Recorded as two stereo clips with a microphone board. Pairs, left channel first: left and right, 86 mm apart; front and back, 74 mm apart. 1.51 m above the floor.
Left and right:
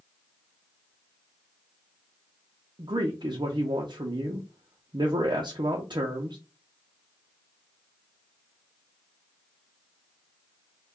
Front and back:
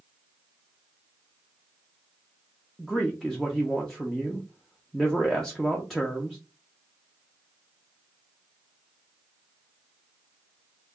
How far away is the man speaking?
About 0.5 m.